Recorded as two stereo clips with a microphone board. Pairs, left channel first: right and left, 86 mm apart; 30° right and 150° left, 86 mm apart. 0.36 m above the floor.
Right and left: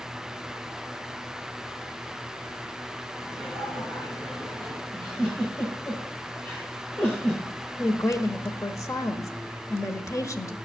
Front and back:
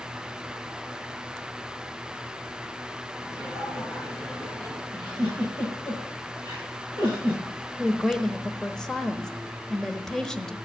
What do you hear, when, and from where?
3.2 s laughter: 50° right, 4 m
4.9 s a giggle: 30° right, 9.5 m
7.8 s a woman speaking: 110° right, 1.2 m